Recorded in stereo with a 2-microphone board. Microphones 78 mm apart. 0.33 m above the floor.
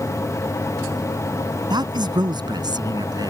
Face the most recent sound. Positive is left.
turn(degrees=-60)  # may be behind; listen again after turning